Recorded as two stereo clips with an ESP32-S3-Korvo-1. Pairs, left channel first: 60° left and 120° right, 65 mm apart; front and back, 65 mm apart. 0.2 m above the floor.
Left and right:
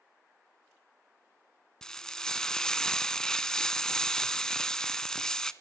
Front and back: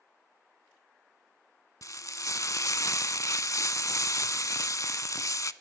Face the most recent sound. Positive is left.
turn(degrees=-15)